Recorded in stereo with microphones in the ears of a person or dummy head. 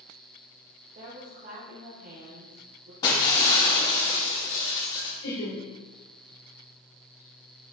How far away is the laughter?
About 2.5 m.